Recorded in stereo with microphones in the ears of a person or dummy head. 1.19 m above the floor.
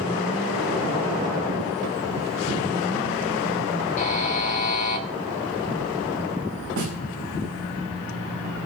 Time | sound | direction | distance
4.0 | a buzzer | 40° left (ahead or behind) | 2 m
6.8 | a snare drum | 55° right (ahead or behind) | 5 m